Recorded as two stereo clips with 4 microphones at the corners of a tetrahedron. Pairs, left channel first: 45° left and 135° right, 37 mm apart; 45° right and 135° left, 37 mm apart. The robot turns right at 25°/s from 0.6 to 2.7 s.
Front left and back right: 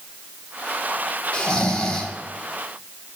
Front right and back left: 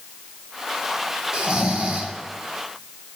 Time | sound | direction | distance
1.3 | snoring | 90° left | 0.7 m